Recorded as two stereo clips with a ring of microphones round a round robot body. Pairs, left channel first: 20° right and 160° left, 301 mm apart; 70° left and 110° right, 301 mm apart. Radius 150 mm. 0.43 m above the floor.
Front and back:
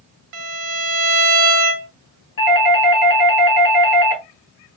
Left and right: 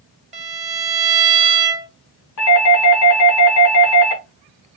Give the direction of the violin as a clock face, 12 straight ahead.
6 o'clock.